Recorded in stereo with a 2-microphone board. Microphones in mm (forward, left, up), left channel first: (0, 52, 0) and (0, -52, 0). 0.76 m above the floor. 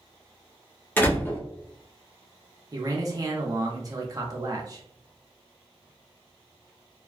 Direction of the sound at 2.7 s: 35° right (ahead or behind).